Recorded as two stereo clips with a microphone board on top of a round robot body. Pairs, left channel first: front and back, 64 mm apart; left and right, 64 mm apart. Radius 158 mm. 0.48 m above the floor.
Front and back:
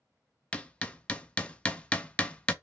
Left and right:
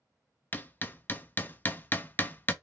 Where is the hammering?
60° left, 0.6 m.